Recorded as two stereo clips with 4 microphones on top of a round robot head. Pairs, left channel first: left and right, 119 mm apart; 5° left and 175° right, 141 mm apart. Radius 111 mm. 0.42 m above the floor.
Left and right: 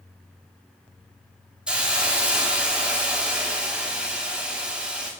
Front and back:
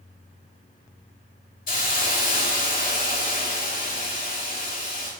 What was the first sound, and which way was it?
A hiss, 10° right.